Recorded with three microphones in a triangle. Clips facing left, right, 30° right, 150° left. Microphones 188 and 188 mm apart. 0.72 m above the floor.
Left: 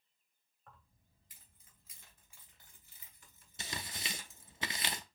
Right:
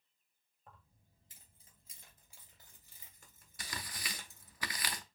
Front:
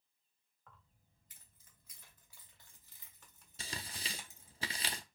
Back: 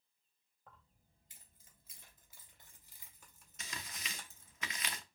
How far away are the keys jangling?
About 3 m.